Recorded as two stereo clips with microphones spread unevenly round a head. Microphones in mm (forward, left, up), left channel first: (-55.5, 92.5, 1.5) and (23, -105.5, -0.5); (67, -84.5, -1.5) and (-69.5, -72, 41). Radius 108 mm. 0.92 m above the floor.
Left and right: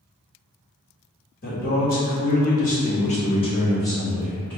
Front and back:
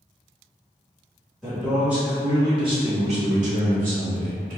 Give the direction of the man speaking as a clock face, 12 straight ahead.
10 o'clock.